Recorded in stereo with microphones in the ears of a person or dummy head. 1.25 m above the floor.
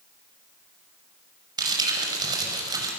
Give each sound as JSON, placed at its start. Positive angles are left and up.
{"t": 1.6, "sound": "crumpling", "side_deg": -20, "distance_m": 5.5}